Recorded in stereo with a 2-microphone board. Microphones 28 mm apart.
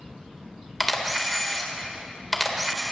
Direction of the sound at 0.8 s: Centre (ahead or behind).